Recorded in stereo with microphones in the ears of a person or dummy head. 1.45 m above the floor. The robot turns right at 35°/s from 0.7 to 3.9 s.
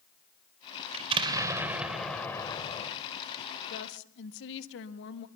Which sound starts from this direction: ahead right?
An explosion, at 0.9 s.